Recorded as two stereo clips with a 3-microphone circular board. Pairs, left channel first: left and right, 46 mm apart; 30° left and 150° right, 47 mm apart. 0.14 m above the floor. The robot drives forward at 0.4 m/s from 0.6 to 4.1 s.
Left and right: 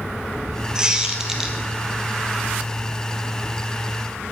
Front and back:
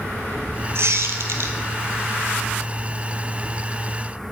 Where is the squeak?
160° right, 0.8 m; by 1.6 s 165° right, 1.1 m.